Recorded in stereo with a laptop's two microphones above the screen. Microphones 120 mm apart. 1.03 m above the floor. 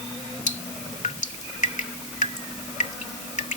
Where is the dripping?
70° left (ahead or behind).